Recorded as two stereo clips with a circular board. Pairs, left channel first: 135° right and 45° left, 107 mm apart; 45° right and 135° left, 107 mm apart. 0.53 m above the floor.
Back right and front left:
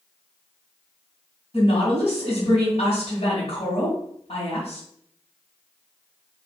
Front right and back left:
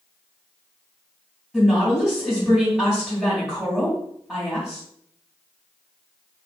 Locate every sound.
1.5 s a woman speaking: 135° right, 2 m